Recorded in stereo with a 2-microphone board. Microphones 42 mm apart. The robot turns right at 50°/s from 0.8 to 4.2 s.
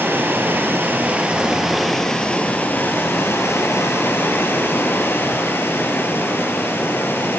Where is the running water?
50° right, 4 m; by 7.4 s 120° left, 4 m.